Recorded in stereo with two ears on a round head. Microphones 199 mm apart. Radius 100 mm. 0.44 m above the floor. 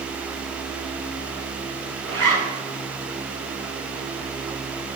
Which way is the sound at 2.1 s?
60° right (ahead or behind).